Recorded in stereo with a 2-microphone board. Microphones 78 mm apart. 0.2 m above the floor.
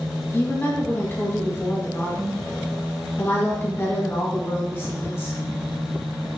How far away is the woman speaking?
About 1.7 m.